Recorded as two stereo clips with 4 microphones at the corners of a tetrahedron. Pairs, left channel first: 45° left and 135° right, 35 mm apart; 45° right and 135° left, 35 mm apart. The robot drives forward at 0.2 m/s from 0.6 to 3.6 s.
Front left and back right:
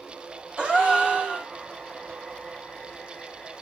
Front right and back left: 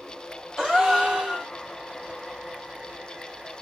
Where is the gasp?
150° right, 1.5 m; by 1.5 s 155° right, 1.6 m.